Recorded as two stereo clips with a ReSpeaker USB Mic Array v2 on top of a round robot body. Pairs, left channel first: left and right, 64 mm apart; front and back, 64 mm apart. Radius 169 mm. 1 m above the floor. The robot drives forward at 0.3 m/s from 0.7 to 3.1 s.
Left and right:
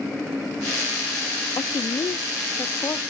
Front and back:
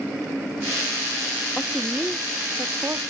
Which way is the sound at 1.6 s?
80° left.